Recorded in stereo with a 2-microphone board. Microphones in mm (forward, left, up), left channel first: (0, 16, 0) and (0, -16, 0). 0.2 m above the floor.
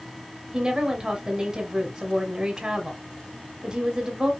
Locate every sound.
0.5 s a woman speaking: 25° right (ahead or behind), 1.0 m